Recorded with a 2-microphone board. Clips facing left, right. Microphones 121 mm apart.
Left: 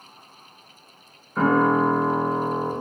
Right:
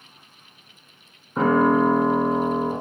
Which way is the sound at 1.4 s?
25° right (ahead or behind).